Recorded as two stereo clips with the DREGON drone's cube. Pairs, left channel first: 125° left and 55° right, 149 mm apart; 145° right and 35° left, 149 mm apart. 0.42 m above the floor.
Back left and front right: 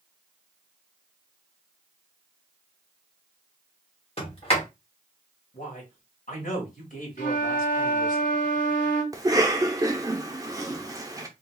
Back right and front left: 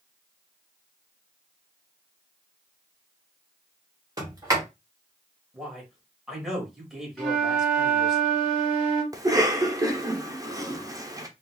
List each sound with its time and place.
4.2 s a sliding door: 95° left, 1.5 m
5.5 s a man speaking: 120° left, 1.7 m
7.2 s a flute: 125° left, 2.5 m
9.1 s a cough: 10° right, 0.8 m